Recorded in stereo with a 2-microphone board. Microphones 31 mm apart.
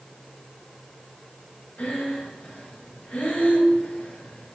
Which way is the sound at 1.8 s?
50° left (ahead or behind).